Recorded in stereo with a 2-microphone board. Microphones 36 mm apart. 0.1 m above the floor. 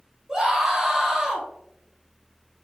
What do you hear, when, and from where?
0.3 s a scream: 20° right (ahead or behind), 1.3 m